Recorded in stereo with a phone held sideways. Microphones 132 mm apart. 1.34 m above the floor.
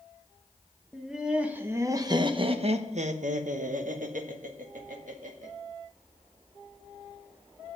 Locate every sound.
0.9 s laughter: centre (ahead or behind), 1.2 m; by 5.5 s 75° right (ahead or behind), 1.9 m